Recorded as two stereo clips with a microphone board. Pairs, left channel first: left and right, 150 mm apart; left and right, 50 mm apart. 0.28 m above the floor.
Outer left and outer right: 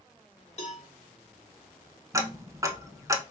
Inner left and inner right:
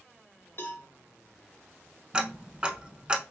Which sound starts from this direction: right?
Ticking, at 2.1 s.